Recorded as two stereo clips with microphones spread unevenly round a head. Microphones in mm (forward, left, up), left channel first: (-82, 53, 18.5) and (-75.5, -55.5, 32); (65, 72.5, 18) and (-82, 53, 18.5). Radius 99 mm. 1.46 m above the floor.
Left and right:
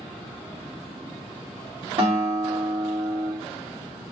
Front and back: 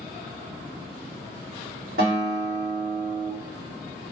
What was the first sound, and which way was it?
A guitar, 125° right.